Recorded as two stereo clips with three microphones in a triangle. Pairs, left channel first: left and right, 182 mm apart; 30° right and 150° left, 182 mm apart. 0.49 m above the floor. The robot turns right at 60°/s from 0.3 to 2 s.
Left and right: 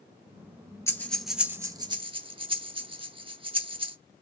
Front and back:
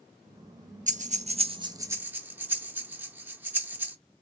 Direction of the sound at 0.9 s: 160° left.